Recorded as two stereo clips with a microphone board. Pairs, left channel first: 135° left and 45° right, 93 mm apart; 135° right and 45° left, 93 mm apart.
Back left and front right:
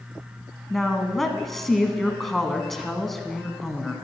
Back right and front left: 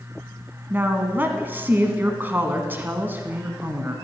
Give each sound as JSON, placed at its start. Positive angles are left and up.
{"t": 0.7, "sound": "a woman speaking", "azimuth_deg": 55, "distance_m": 1.3}